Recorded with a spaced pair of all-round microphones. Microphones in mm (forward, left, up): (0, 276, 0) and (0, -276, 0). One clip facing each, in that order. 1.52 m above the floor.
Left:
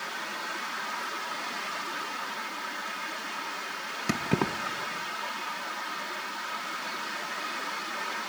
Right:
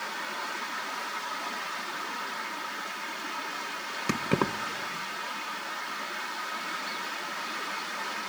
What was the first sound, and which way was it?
Keys jangling, 5° left (ahead or behind).